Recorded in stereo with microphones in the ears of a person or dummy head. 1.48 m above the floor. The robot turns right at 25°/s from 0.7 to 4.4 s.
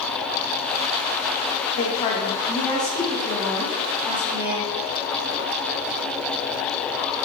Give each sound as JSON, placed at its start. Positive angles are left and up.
{"t": 1.8, "sound": "a woman speaking", "azimuth_deg": 135, "distance_m": 0.8}